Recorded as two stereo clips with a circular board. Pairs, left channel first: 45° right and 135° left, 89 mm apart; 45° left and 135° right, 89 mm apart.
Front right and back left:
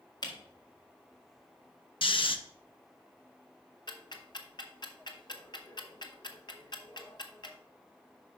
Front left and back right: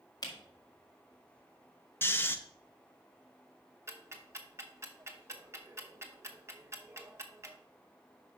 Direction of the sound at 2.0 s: 25° right.